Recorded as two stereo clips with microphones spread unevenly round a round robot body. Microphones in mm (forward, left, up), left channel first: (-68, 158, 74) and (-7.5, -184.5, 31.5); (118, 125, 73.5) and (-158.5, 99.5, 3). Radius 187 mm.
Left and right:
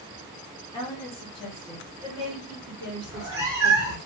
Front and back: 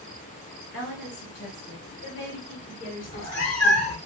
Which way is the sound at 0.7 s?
30° left.